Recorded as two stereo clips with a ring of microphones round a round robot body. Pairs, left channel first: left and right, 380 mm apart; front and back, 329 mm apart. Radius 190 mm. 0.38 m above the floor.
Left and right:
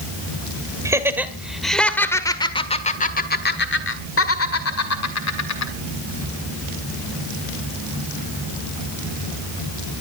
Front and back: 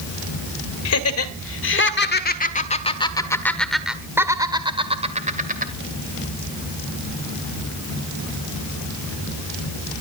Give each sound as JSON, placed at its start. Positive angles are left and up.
{"t": 0.8, "sound": "laughter", "azimuth_deg": -10, "distance_m": 1.9}